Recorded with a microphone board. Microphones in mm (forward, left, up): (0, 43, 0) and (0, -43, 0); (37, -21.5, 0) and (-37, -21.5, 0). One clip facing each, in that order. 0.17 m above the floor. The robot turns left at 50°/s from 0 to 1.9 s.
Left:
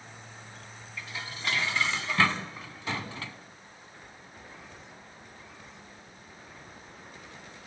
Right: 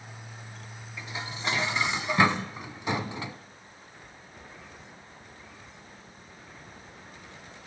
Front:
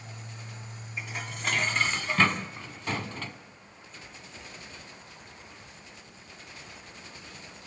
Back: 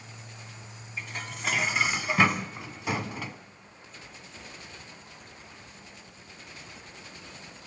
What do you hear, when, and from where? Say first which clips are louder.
1.0 s dishes clattering: right 3 dB, even; 75° right, 0.8 m; by 3.4 s 120° right, 0.8 m